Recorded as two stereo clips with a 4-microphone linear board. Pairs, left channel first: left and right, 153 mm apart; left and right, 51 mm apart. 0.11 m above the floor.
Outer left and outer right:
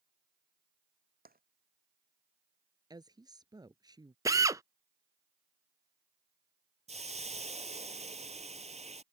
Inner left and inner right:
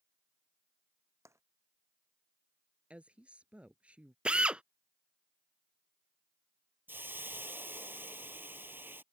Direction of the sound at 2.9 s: 25° right (ahead or behind).